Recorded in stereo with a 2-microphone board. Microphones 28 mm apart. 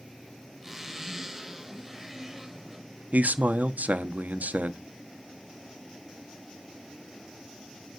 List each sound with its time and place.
0.6 s a zipper: 10° right (ahead or behind), 5 m
3.1 s a man speaking: 80° right, 1.2 m